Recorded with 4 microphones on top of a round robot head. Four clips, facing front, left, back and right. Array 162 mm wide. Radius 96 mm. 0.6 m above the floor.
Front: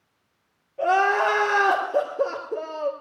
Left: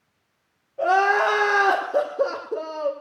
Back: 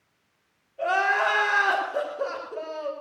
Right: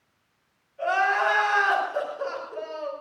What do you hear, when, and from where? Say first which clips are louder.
0.8 s crying: left 4 dB, front 4 dB; 60° left, 2.5 m